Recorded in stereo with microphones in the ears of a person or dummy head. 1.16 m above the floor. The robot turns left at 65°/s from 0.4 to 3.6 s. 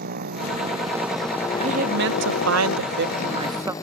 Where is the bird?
I don't hear a bird.